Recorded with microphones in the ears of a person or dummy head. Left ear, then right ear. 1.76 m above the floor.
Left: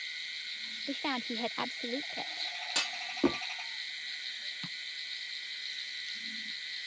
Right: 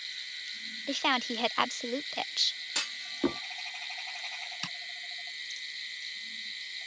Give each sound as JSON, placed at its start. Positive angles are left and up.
{"t": 0.9, "sound": "a woman speaking", "side_deg": -40}
{"t": 2.8, "sound": "a clunk", "side_deg": 5}
{"t": 4.6, "sound": "tapping", "side_deg": -60}